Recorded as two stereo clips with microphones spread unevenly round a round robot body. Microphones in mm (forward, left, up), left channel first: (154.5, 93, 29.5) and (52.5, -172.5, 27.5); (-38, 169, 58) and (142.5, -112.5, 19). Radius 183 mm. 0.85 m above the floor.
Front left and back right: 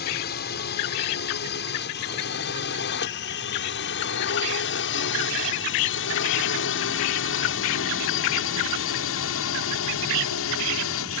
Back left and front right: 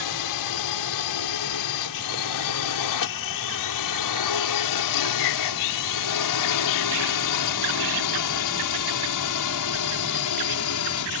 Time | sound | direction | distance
0.0 | a drone | 125° left | ?